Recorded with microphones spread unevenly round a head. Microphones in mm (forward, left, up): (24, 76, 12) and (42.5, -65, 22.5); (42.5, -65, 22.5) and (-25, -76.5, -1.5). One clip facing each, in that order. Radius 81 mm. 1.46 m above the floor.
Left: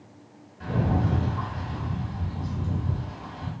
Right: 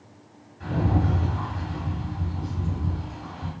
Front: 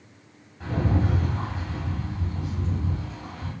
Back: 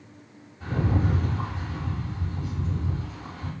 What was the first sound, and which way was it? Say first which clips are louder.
A rattle: right 1 dB, front 1 dB; 65° left.